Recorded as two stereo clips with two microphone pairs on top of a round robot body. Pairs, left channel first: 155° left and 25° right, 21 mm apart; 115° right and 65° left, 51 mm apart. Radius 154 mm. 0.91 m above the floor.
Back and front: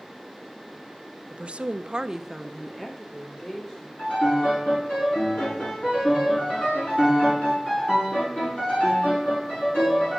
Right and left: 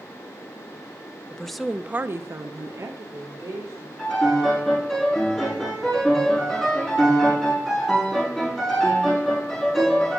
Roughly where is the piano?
Behind.